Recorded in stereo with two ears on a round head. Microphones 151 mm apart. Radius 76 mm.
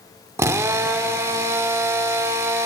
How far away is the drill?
About 1.1 m.